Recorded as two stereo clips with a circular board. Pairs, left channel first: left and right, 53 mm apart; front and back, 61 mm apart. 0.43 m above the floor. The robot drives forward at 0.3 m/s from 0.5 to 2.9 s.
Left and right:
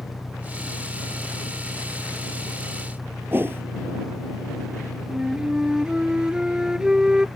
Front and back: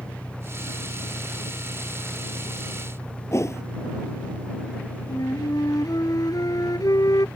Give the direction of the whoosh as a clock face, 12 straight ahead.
1 o'clock.